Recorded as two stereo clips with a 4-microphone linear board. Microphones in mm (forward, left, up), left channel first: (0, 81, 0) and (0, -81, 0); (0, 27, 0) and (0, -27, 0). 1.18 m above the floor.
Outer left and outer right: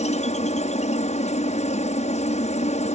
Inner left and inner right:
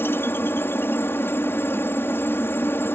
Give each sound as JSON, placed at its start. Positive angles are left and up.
{"t": 0.0, "sound": "a helicopter", "side_deg": 40}